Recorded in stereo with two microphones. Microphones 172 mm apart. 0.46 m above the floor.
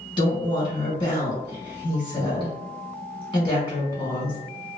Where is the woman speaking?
30° left (ahead or behind), 1.5 m.